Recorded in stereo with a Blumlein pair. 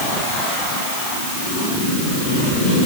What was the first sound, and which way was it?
Only background noise.